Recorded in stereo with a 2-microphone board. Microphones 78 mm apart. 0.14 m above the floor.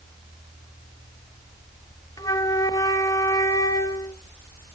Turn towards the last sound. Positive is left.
turn(degrees=50)  # may be behind; listen again after turning